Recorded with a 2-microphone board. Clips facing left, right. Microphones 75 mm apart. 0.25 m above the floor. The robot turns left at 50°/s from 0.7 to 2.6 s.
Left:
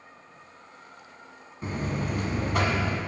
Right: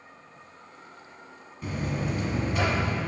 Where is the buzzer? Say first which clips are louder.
Even; 140° left, 1.0 m; by 3.0 s 95° left, 1.0 m.